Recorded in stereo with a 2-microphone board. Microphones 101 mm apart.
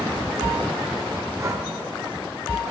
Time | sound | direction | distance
1.4 | breathing | 30° right (ahead or behind) | 0.8 m